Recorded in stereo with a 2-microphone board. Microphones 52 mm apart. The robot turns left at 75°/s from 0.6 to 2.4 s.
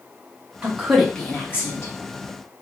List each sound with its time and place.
0.6 s a woman speaking: 25° right (ahead or behind), 1.3 m; by 1.9 s 60° left (ahead or behind), 1.3 m